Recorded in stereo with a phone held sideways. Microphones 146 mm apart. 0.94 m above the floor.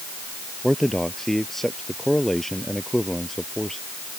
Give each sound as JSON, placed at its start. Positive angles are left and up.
{"t": 0.6, "sound": "a man speaking", "side_deg": 0}